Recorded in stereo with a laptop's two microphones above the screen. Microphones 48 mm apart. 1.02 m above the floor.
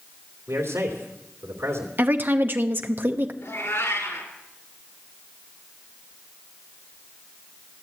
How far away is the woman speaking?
About 0.8 m.